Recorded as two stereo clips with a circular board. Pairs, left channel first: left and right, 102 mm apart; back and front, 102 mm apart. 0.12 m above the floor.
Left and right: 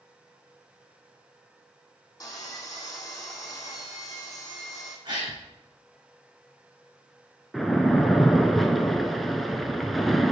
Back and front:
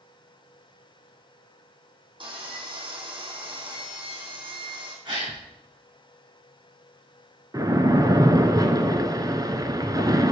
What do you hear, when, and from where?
2.2 s sawing: 30° left, 3 m
5.0 s a gasp: 45° right, 2.5 m
7.5 s a splash: straight ahead, 0.7 m